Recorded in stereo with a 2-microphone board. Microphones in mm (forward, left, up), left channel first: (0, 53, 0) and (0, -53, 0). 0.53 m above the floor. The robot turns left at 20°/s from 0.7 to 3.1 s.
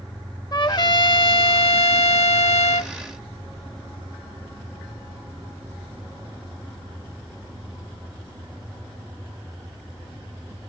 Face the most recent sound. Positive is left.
turn(degrees=90)